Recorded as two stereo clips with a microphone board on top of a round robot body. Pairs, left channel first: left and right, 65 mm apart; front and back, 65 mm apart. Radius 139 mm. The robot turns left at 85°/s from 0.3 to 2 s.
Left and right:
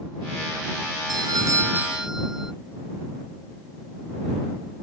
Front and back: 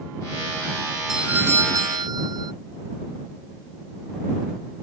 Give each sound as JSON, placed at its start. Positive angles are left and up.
{"t": 1.1, "sound": "a doorbell", "azimuth_deg": -95}